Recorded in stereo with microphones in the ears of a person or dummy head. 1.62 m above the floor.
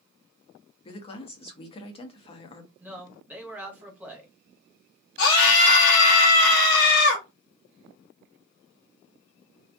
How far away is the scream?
About 0.7 m.